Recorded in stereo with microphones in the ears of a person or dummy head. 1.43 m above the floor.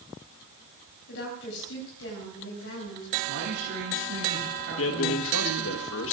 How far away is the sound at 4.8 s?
About 1.6 m.